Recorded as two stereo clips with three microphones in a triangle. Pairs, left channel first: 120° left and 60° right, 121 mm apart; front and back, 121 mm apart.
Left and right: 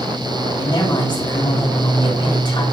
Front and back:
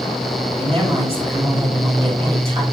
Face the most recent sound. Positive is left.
turn(degrees=165)